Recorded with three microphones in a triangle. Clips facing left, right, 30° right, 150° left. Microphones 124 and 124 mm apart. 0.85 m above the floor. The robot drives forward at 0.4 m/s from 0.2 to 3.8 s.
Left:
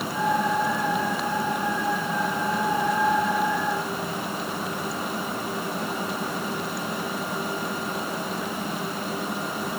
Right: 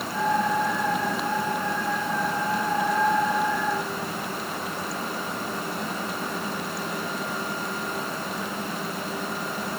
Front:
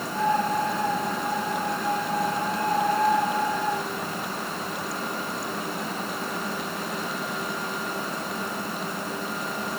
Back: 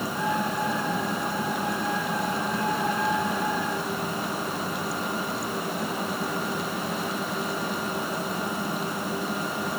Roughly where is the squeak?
No squeak in this recording.